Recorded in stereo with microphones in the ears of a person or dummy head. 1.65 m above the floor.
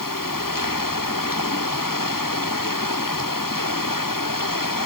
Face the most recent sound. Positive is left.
No sound to turn to.